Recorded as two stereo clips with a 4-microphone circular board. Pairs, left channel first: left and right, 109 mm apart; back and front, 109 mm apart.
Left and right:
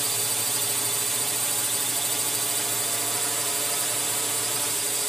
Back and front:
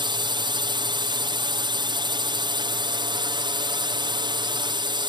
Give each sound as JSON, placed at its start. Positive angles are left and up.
{"t": 0.0, "sound": "a drone", "azimuth_deg": 0}